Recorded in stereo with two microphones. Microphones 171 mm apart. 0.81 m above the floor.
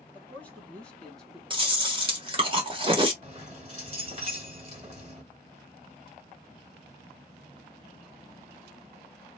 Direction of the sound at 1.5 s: 30° right (ahead or behind).